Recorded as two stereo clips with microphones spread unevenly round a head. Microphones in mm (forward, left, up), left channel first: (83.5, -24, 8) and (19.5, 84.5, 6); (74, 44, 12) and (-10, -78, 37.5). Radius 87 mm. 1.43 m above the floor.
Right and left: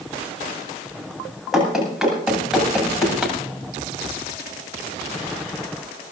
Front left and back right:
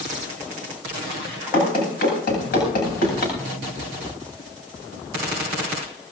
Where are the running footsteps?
35° left, 9 m.